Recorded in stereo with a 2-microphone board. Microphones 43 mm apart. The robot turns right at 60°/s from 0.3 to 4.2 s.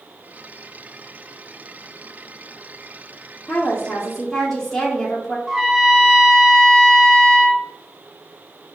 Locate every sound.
3.5 s a woman speaking: 115° left, 0.9 m; by 5.4 s 160° left, 0.9 m
5.5 s a trumpet: 10° right (ahead or behind), 0.8 m